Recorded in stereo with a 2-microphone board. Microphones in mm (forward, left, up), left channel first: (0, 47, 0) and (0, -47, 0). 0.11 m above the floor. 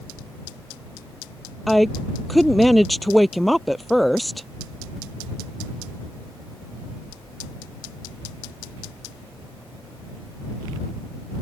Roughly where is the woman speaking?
Centre.